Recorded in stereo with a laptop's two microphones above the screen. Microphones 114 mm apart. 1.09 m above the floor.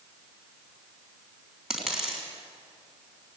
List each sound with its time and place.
1.7 s a dropped coin: 5° right (ahead or behind), 3.5 m